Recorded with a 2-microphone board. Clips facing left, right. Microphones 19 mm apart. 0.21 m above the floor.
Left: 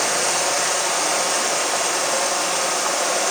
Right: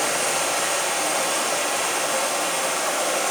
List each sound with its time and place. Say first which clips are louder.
0.0 s running water: left 2 dB; 40° left (ahead or behind), 7 m